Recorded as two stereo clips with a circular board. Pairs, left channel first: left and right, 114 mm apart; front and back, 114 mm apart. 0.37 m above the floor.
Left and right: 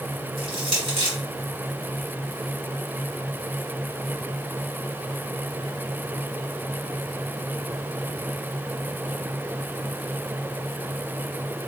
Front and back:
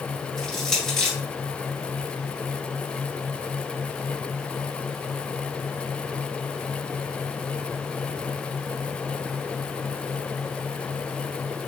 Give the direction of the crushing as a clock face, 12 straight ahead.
3 o'clock.